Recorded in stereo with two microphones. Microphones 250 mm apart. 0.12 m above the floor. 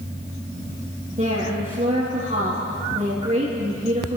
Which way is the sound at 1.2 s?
30° right (ahead or behind).